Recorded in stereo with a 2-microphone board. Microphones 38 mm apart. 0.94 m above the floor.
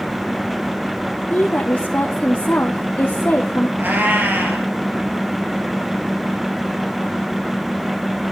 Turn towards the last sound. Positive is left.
turn(degrees=-55)  # may be behind; listen again after turning